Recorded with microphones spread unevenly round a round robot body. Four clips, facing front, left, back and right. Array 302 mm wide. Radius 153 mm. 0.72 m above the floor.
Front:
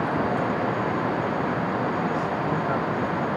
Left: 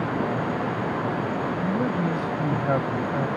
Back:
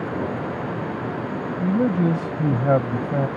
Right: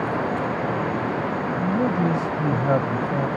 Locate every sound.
1.6 s a man speaking: 165° right